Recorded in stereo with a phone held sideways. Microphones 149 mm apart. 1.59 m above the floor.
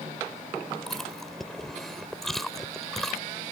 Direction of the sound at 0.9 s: 5° left (ahead or behind).